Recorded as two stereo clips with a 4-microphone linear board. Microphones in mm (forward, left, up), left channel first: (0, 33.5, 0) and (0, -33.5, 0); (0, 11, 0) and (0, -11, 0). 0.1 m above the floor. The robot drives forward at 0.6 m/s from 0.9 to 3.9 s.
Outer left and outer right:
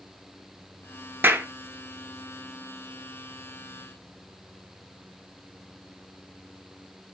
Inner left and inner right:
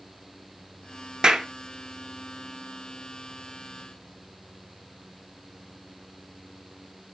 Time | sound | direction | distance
1.2 | a clap | 30° right (ahead or behind) | 1.0 m